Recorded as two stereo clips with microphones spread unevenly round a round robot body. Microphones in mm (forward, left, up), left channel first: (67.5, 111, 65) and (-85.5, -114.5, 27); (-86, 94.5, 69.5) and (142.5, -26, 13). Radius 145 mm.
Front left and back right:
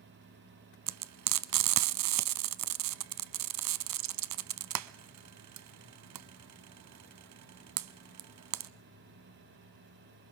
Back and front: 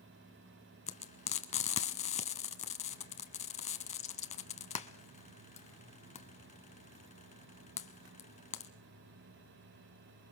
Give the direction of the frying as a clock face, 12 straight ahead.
5 o'clock.